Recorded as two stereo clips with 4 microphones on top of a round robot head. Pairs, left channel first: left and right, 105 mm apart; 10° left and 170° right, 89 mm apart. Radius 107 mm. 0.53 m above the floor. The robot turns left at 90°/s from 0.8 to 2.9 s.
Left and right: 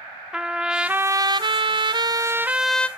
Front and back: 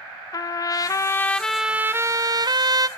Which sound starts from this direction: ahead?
A trumpet, at 0.3 s.